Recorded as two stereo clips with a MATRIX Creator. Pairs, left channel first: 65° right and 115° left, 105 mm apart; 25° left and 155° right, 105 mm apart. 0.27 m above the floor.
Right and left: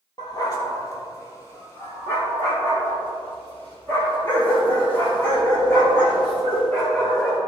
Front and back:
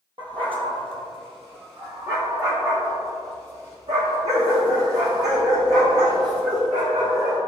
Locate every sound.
0.2 s a dog barking: 115° right, 2 m; by 7.4 s 150° right, 6.5 m